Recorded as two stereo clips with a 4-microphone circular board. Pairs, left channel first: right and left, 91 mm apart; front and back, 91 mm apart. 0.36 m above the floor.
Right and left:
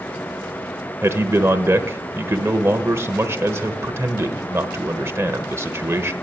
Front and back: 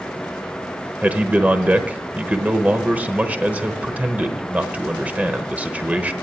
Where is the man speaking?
120° left, 1.0 m.